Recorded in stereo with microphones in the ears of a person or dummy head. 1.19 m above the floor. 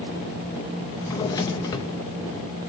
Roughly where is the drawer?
Centre.